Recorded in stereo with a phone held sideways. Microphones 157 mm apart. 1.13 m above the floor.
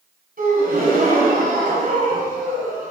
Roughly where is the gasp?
Right.